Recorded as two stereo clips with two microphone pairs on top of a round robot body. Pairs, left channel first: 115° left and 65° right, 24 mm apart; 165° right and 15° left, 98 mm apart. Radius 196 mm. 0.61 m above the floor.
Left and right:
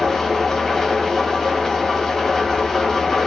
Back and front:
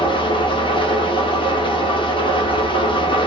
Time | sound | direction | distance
0.0 | an engine running | 165° right | 1.7 m